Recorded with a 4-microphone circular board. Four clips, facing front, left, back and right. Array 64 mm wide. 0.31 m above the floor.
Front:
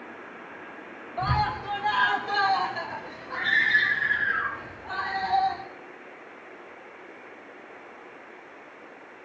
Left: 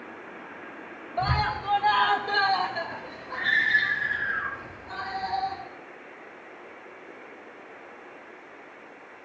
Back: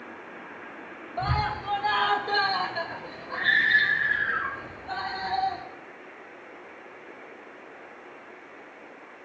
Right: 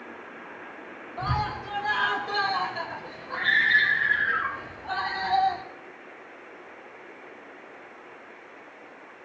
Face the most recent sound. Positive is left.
turn(degrees=-105)